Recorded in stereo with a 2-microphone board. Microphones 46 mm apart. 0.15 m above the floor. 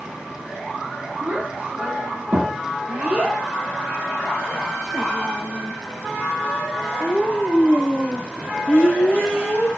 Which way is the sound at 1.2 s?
35° right (ahead or behind).